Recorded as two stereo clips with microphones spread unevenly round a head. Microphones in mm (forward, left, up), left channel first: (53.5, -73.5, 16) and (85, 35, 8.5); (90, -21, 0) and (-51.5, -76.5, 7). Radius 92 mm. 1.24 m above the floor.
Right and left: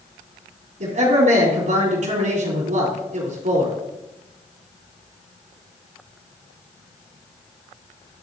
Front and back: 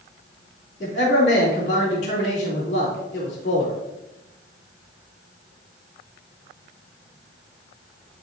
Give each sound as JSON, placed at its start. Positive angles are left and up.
{"t": 0.8, "sound": "a man speaking", "azimuth_deg": 75, "distance_m": 3.0}